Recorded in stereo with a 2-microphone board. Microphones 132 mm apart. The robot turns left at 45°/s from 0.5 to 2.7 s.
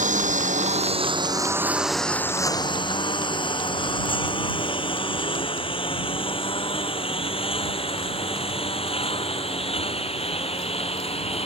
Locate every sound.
0.0 s a lawn mower: 70° right (ahead or behind); by 11.5 s 45° left (ahead or behind)